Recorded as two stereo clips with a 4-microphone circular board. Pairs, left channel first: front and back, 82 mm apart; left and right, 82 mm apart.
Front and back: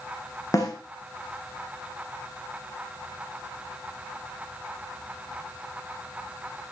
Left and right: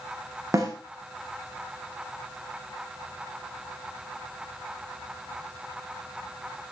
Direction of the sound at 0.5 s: 40° right.